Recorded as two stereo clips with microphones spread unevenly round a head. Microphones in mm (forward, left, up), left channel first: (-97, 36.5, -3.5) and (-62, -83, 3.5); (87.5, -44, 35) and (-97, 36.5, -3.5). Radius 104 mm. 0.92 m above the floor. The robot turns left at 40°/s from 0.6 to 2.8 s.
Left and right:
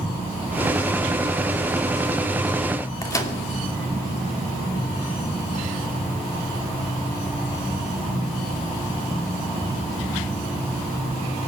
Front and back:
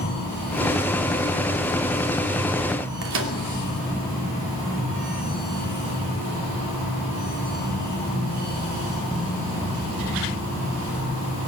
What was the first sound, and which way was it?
A microwave, 170° left.